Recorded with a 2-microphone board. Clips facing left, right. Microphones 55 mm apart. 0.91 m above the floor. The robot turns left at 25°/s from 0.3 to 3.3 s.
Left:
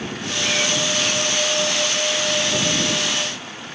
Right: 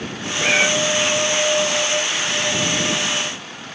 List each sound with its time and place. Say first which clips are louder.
0.4 s a cat meowing: right 6 dB; 45° right (ahead or behind); by 0.7 s 40° right (ahead or behind)